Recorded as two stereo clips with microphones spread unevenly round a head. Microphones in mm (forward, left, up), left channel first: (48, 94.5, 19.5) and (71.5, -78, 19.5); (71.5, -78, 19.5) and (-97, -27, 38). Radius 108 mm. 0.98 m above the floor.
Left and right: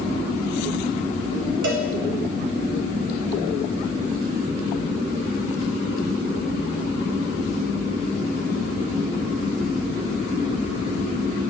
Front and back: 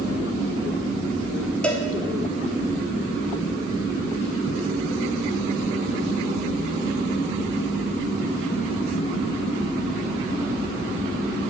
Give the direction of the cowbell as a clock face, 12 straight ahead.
3 o'clock.